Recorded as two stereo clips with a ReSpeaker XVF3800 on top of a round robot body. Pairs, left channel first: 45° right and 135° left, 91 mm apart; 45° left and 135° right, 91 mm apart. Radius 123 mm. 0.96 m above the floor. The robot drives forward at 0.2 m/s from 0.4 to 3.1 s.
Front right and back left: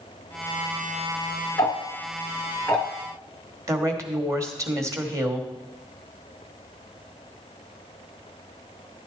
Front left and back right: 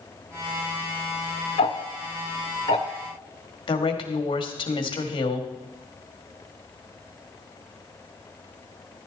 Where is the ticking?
15° left, 0.6 m; by 2.9 s 25° left, 0.5 m.